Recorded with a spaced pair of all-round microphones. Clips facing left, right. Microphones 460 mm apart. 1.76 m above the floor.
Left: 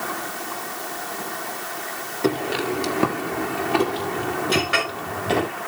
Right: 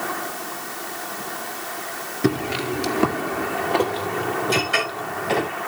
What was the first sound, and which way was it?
Footsteps, 30° right (ahead or behind).